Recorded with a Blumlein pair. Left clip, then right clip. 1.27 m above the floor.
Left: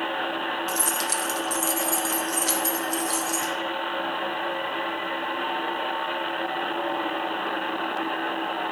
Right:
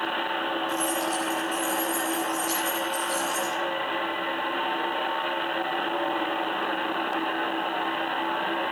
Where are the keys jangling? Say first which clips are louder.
Even; 45° left, 1.5 m; by 3.5 s 35° left, 3 m.